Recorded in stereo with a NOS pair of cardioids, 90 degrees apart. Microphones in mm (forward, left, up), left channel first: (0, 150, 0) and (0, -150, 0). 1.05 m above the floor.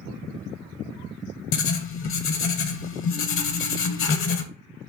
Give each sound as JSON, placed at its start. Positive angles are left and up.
{"t": 1.5, "sound": "writing", "azimuth_deg": 45, "distance_m": 0.7}